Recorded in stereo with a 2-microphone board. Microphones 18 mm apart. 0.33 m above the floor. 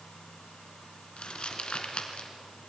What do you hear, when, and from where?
1.2 s crumpling: 75° left (ahead or behind), 2.5 m